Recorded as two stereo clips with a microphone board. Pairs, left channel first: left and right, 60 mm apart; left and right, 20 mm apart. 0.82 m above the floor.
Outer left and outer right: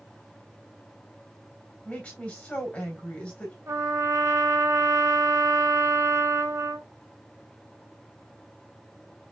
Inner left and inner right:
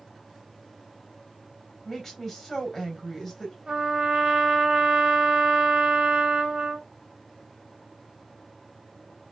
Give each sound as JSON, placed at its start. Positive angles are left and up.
{"t": 1.9, "sound": "a woman speaking", "side_deg": 20, "distance_m": 3.5}
{"t": 3.7, "sound": "a trumpet", "side_deg": -50, "distance_m": 2.0}